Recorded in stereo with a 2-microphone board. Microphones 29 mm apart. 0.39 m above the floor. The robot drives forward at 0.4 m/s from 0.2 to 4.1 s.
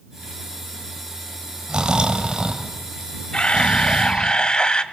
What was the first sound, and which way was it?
Snoring, 30° right (ahead or behind).